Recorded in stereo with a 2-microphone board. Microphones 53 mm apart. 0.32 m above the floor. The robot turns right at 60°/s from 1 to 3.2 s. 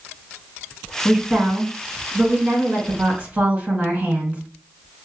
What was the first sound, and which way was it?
A woman speaking, 175° right.